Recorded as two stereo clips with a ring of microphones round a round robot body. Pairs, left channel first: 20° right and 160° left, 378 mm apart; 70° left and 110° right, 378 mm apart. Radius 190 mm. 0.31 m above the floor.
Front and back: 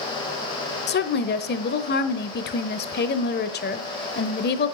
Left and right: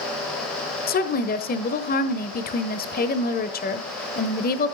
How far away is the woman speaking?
About 1.1 m.